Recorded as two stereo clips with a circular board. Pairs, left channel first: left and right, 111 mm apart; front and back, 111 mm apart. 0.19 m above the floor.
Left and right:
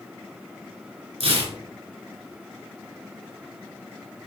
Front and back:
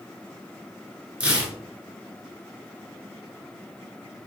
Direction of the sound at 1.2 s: 100° right.